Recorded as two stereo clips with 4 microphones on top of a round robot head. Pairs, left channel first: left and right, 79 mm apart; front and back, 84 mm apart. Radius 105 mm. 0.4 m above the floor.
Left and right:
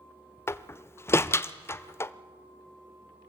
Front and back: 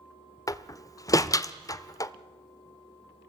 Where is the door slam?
40° left, 1.0 m.